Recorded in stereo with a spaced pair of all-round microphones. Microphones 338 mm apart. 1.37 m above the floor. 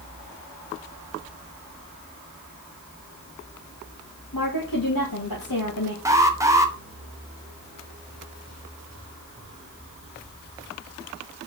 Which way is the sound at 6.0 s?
10° right (ahead or behind).